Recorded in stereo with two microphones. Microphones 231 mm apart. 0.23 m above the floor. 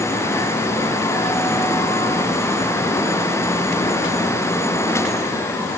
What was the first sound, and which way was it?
Only background noise.